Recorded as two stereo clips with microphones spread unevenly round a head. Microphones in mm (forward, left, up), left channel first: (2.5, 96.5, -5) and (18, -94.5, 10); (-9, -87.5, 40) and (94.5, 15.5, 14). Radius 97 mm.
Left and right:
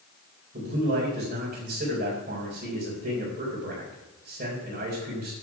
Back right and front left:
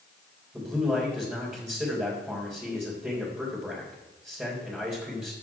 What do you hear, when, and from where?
0.5 s a man speaking: 35° right, 4 m